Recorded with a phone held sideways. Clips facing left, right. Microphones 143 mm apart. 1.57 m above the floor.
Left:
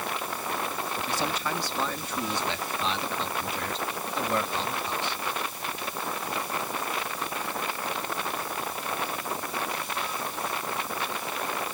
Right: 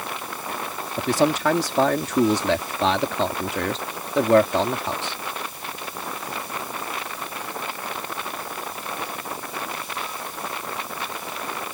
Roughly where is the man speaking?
Right.